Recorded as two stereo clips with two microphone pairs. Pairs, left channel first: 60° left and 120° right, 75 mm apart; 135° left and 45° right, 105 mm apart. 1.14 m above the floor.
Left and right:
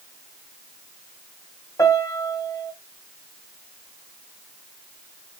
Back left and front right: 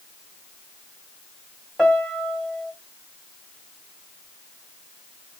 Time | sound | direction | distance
1.8 | a piano | 50° left | 1.2 m